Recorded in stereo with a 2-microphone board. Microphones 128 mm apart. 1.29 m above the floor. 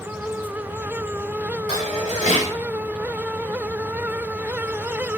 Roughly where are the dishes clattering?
Left.